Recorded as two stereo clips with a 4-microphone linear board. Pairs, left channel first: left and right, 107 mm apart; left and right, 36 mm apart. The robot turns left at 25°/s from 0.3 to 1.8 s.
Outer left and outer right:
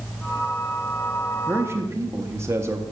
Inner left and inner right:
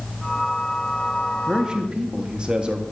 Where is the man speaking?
20° right (ahead or behind), 0.6 m; by 2.8 s 25° right (ahead or behind), 0.6 m.